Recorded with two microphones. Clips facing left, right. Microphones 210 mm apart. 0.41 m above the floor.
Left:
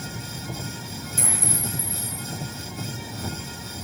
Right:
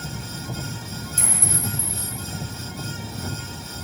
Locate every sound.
1.2 s a clink: 60° left (ahead or behind), 4.5 m